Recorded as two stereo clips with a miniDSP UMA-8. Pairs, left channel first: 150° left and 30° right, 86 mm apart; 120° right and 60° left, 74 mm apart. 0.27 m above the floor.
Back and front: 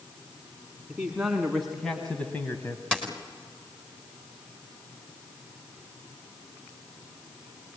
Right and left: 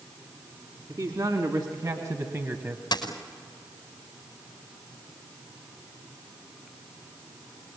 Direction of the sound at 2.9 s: 130° right.